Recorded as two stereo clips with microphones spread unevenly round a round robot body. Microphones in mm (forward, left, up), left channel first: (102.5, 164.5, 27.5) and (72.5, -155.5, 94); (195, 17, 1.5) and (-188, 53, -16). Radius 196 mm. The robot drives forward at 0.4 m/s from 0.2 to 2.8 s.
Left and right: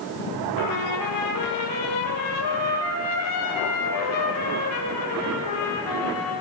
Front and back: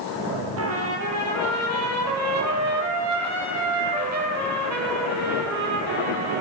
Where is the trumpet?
120° left, 6 m; by 6.4 s 130° left, 6.5 m.